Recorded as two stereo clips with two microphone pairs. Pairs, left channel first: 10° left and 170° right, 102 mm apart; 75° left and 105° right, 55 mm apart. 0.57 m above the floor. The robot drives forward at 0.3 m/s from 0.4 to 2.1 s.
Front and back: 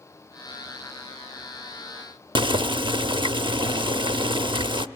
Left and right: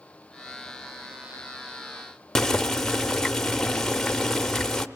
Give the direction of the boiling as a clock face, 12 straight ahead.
7 o'clock.